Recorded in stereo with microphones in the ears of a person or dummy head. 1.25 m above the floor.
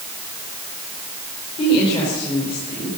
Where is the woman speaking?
30° left (ahead or behind), 4.5 m.